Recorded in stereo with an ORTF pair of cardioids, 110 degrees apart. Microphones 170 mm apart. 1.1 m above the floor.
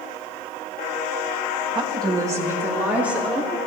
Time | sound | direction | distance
1.8 | a woman speaking | 30° right | 1.4 m